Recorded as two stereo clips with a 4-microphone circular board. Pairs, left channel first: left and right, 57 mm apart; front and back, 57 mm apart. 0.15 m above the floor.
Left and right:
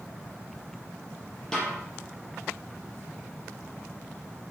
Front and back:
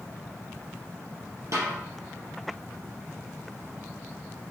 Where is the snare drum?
165° left, 4 m.